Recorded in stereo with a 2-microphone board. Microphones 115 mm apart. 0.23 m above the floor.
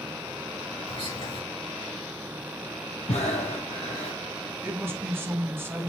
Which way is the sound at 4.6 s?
20° right (ahead or behind).